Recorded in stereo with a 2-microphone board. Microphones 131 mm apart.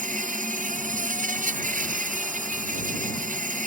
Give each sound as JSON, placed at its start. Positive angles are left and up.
{"t": 0.0, "sound": "an insect", "side_deg": -80}